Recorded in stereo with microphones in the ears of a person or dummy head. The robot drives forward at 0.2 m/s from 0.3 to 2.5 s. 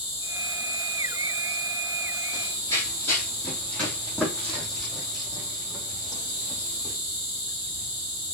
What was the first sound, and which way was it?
An insect, 25° left (ahead or behind).